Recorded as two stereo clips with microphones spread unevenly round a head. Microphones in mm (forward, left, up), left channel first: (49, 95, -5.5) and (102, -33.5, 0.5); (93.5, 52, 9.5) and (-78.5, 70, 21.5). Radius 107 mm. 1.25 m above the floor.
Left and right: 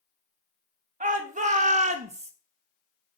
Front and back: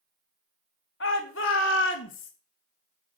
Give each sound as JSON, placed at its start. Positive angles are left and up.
{"t": 1.0, "sound": "a shout", "azimuth_deg": -40, "distance_m": 1.7}